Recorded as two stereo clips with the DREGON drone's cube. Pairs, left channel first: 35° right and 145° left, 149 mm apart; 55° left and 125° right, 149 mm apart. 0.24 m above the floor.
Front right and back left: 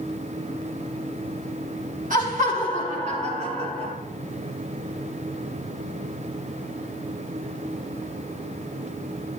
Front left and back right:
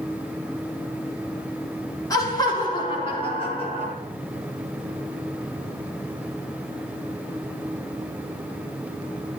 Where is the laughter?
120° left, 4.5 m; by 3.9 s 100° left, 6 m.